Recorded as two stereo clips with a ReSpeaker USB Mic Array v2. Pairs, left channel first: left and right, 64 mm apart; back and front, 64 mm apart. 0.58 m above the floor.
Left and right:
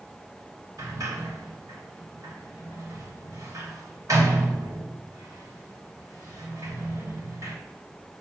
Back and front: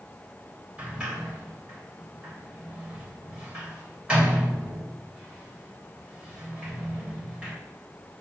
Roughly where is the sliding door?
Right.